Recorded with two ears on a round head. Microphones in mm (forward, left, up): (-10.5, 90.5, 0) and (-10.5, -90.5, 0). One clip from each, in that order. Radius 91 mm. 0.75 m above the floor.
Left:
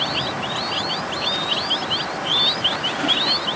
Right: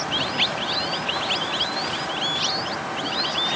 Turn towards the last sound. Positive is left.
No sound to turn to.